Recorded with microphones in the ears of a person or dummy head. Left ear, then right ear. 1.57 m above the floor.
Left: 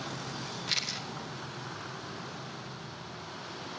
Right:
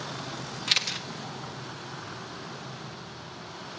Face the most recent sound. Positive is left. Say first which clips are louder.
# right 6 dB
turn(degrees=-25)  # may be behind; listen again after turning